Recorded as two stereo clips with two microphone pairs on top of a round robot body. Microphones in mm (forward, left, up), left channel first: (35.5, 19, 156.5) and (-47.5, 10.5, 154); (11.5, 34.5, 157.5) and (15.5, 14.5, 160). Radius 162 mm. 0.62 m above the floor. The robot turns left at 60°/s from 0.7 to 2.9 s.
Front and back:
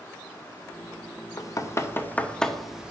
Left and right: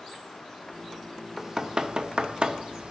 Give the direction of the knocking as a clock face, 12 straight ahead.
12 o'clock.